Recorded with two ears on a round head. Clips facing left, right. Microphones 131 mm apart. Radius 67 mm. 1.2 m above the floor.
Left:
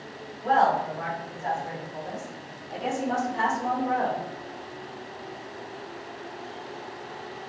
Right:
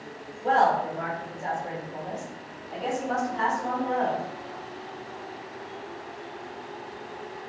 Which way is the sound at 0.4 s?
50° right (ahead or behind).